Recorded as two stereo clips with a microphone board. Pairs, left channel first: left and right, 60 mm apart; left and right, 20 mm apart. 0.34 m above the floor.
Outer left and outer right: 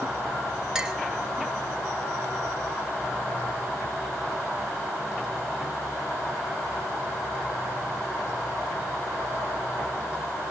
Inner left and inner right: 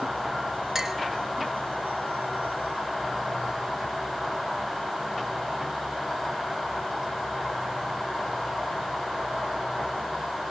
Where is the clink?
15° right (ahead or behind), 0.6 m.